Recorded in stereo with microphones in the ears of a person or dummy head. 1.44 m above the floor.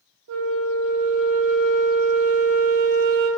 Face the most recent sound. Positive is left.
turn(degrees=-60)  # may be behind; listen again after turning